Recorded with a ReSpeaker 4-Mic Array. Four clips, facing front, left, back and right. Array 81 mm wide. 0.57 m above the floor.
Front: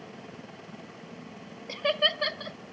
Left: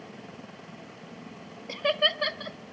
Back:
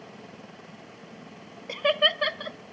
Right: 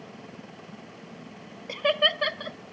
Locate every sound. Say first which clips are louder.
1.7 s laughter: right 2 dB, back 3 dB; 155° right, 0.6 m